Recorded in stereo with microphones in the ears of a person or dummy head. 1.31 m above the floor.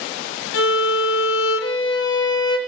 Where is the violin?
60° left (ahead or behind), 1.1 m.